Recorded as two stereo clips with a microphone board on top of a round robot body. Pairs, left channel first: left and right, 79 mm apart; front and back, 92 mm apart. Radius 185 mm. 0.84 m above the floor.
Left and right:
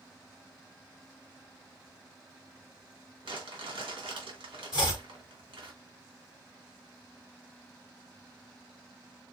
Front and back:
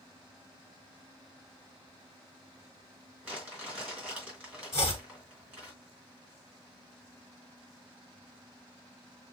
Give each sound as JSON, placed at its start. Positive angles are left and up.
{"t": 3.2, "sound": "crumpling", "azimuth_deg": -105, "distance_m": 4.0}
{"t": 4.7, "sound": "chopping", "azimuth_deg": 50, "distance_m": 0.5}